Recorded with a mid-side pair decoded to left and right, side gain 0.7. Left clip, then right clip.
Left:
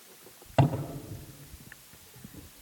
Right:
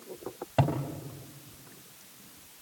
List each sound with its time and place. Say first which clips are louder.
0.6 s a cupboard door: left 2 dB; 10° left, 4 m